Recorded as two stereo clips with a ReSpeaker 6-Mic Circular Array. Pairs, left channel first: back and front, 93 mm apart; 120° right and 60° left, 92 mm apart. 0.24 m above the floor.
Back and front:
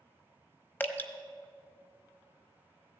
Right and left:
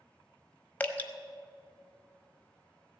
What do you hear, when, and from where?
0.8 s dripping: 160° right, 0.9 m